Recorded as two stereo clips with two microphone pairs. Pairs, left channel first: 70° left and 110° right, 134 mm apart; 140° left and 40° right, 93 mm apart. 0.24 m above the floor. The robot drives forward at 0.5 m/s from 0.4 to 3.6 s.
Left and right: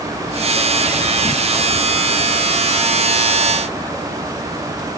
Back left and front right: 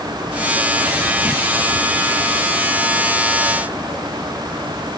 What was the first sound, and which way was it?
Only background noise.